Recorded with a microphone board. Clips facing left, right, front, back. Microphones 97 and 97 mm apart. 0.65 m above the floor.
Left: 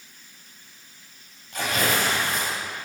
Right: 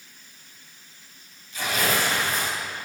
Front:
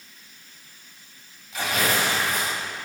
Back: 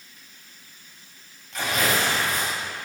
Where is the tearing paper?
90° left, 2.0 m.